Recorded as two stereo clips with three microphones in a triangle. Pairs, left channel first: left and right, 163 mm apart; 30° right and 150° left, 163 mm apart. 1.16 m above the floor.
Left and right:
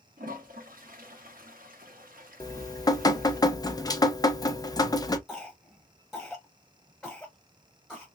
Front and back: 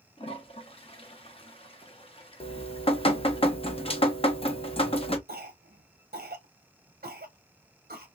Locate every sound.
0.2 s a toilet flushing: 80° right, 0.9 m
2.4 s dripping: 20° left, 0.5 m
5.3 s a cough: straight behind, 0.6 m